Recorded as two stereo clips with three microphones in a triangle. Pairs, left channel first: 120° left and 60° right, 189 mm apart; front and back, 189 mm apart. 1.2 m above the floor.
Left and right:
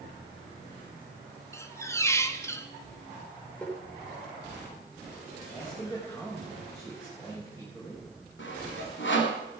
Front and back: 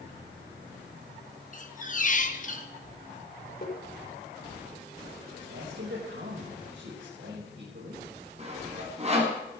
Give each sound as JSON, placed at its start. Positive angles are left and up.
{"t": 1.5, "sound": "a squeak", "azimuth_deg": 45, "distance_m": 1.2}
{"t": 3.6, "sound": "tapping", "azimuth_deg": 40, "distance_m": 5.5}
{"t": 5.5, "sound": "a man speaking", "azimuth_deg": -165, "distance_m": 5.0}
{"t": 8.4, "sound": "sawing", "azimuth_deg": 125, "distance_m": 3.0}